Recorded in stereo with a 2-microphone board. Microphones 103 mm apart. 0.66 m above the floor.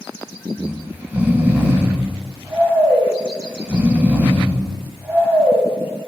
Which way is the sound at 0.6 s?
15° right (ahead or behind).